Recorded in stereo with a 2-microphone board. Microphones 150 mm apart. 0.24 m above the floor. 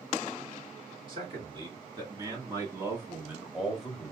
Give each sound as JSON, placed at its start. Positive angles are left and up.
{"t": 1.1, "sound": "a man speaking", "side_deg": -35, "distance_m": 3.0}